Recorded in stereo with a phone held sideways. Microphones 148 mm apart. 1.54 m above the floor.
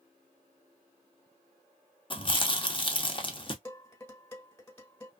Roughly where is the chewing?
Left.